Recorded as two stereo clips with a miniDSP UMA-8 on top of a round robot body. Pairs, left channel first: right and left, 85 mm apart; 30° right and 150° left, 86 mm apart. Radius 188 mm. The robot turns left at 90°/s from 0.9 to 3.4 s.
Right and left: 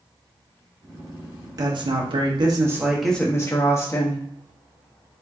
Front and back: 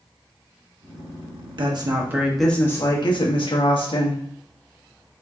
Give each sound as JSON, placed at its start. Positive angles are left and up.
{"t": 1.6, "sound": "a woman speaking", "azimuth_deg": 130, "distance_m": 1.4}